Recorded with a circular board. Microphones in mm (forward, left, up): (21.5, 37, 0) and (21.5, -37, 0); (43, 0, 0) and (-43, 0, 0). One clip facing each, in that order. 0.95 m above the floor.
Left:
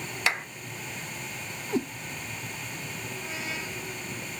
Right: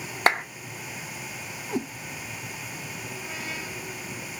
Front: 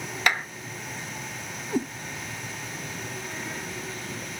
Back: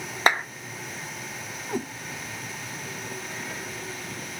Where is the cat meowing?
170° right, 1.7 m.